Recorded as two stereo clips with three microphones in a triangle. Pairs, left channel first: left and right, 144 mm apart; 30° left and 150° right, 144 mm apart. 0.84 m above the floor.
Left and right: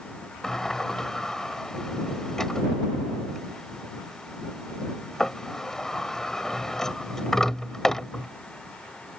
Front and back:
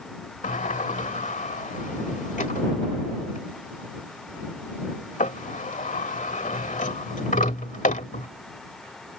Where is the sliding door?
5° left.